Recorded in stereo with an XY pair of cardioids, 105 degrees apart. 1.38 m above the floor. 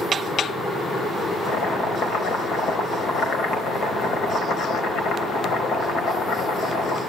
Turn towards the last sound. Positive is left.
turn(degrees=65)